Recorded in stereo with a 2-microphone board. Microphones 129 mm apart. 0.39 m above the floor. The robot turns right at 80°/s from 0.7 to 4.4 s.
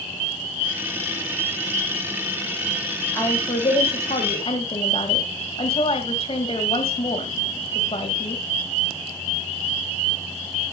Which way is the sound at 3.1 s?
25° left.